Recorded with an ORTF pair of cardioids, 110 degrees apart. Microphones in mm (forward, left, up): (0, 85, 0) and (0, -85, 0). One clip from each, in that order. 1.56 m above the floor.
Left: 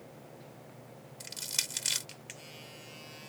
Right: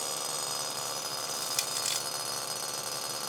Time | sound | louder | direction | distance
1.2 | crushing | left 2 dB | 15° left | ?